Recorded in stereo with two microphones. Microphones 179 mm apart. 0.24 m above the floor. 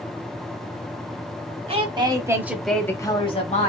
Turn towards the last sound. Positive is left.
turn(degrees=40)  # may be behind; listen again after turning